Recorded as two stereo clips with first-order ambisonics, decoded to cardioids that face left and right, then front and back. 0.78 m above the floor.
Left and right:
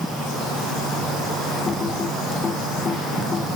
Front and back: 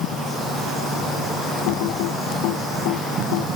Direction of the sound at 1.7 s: 20° left.